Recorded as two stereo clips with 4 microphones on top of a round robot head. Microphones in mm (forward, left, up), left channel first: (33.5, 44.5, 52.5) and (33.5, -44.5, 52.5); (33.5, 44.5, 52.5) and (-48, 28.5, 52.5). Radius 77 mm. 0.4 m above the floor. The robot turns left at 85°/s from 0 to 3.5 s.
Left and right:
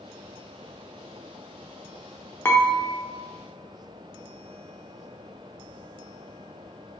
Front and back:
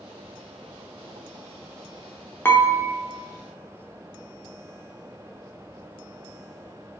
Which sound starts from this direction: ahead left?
Dishes clattering, at 2.5 s.